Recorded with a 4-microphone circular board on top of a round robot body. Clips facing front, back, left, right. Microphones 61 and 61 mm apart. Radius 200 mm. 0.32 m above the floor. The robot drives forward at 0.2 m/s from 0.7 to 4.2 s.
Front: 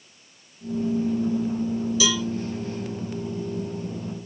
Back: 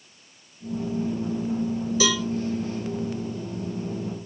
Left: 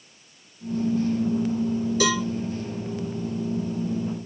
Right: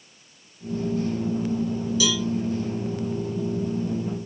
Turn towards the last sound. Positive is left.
turn(degrees=135)